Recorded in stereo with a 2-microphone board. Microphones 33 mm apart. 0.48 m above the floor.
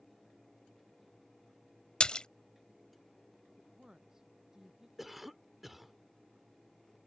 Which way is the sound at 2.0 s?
30° left (ahead or behind).